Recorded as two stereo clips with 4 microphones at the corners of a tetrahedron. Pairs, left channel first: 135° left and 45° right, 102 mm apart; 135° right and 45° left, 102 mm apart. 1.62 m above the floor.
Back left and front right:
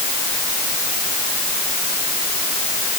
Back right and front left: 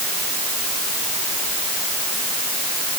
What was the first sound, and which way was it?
Only background noise.